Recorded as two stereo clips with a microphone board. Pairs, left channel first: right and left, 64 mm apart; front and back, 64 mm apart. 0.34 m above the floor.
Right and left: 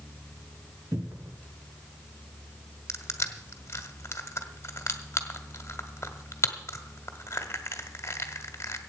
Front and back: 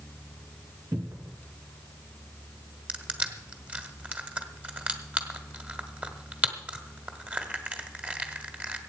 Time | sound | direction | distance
0.9 | a cupboard door | 140° left | 2 m
2.9 | crushing | 120° right | 1.5 m